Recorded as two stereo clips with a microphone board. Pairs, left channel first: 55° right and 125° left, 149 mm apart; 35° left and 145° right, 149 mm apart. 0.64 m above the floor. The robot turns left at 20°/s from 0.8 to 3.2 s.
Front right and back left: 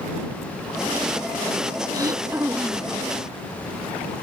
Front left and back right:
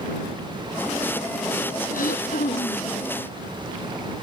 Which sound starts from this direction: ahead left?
Throat clearing, at 1.9 s.